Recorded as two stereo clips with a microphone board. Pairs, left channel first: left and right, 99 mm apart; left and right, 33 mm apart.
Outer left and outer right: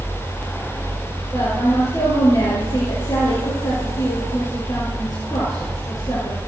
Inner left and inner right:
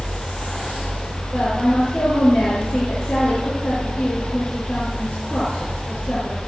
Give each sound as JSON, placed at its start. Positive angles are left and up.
{"t": 1.3, "sound": "a woman speaking", "side_deg": 35, "distance_m": 6.0}